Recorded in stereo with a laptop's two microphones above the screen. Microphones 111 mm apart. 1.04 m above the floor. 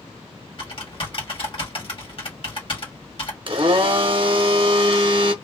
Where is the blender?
45° right (ahead or behind), 0.9 m.